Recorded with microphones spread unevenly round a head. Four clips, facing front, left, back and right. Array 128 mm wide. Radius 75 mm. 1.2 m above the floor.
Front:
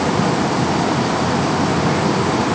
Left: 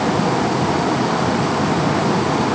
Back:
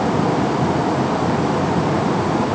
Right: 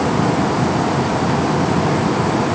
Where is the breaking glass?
I don't hear breaking glass.